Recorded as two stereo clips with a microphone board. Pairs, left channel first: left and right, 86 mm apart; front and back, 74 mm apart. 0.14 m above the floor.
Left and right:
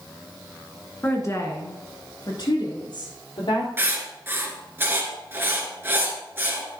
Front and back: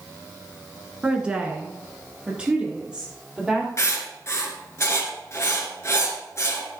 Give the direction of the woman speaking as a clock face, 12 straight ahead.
8 o'clock.